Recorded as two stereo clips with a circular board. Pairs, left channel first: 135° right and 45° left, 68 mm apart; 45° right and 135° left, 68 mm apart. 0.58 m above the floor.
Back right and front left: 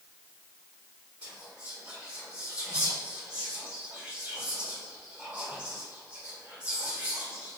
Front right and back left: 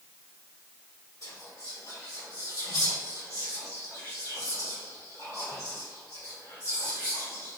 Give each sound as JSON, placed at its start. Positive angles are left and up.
{"t": 1.2, "sound": "whispering", "azimuth_deg": -20, "distance_m": 1.6}